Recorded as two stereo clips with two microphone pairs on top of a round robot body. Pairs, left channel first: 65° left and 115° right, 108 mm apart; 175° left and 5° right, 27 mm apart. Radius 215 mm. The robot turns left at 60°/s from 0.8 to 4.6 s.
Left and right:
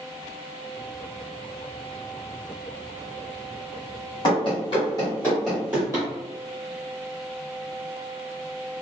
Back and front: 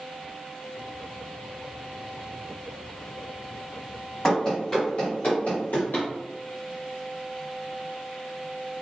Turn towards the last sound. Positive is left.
turn(degrees=180)